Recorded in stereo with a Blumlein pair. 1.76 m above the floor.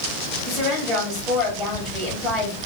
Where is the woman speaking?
Straight ahead, 3 m.